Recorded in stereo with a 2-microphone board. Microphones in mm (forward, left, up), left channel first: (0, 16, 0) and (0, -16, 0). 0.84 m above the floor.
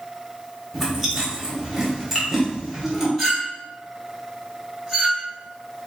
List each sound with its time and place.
0.7 s chewing: 5° right (ahead or behind), 1.6 m
3.2 s a clink: 5° right (ahead or behind), 2 m